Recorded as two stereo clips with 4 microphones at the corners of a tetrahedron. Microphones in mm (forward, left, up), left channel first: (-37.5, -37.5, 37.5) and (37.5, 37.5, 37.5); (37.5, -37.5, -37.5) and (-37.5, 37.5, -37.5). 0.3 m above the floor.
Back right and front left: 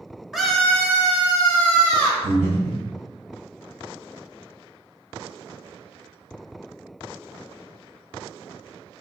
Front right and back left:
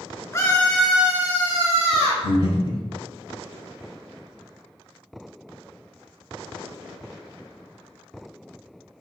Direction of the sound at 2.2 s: 165° left.